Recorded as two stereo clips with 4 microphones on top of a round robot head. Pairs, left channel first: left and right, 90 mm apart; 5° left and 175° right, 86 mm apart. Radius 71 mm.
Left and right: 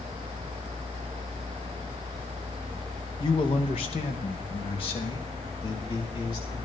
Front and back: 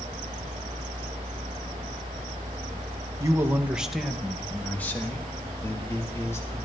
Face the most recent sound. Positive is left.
turn(degrees=60)